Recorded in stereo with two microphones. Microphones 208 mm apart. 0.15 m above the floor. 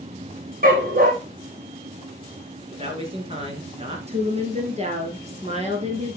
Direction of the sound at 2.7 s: 30° right (ahead or behind).